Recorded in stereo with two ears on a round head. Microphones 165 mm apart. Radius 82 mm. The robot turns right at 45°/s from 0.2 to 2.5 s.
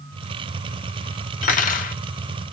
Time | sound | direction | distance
1.4 | cutlery clinking | 40° left (ahead or behind) | 0.5 m